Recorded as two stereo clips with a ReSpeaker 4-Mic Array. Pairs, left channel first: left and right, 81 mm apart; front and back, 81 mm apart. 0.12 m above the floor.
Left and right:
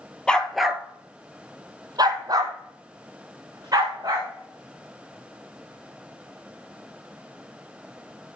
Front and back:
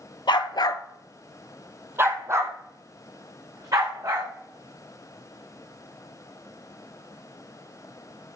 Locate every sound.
0.3 s a dog barking: 10° left, 1.1 m; by 4.3 s 135° right, 4.5 m